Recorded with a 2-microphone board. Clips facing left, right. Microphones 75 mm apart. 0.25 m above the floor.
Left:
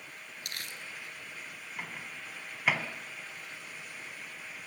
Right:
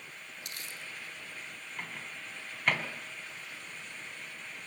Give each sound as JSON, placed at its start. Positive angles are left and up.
{"t": 0.5, "sound": "crumpling", "side_deg": 60, "distance_m": 2.0}
{"t": 1.8, "sound": "a microwave", "side_deg": 5, "distance_m": 1.9}